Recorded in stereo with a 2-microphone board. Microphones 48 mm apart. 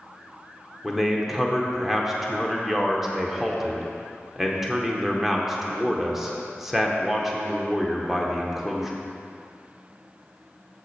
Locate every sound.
0.8 s a man speaking: 5° right (ahead or behind), 0.9 m